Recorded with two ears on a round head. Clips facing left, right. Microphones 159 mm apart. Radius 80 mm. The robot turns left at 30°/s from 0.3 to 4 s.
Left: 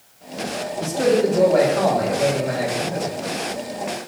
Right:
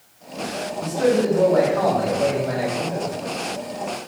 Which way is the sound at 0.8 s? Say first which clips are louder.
Left 1 dB; 55° left.